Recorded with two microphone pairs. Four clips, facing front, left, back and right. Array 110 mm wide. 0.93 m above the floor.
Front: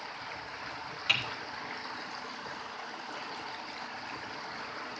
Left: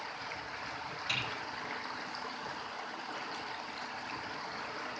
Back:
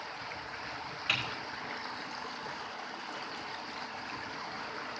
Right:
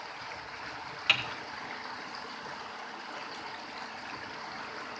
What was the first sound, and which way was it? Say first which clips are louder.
Typing on a keyboard: right 6 dB, front 1 dB; 80° right.